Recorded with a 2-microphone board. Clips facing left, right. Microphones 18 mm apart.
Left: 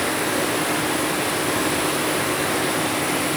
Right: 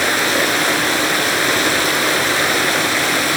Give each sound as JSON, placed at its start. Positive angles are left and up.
{"t": 0.0, "sound": "running water", "side_deg": -80, "distance_m": 3.5}